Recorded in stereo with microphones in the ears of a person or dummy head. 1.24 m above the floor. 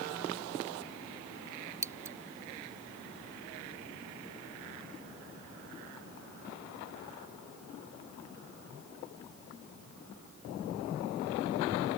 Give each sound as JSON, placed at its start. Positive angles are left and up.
{"t": 1.8, "sound": "scissors", "side_deg": -15}